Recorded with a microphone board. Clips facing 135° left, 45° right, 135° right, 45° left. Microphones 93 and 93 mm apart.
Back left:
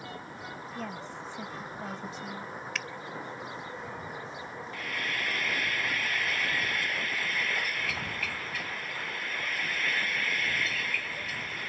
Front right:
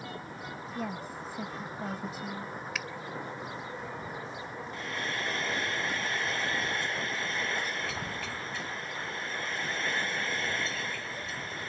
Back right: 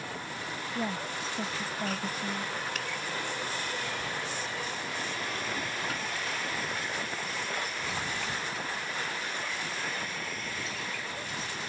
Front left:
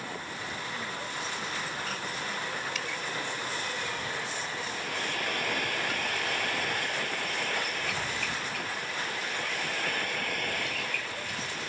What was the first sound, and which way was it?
A woman speaking, 125° right.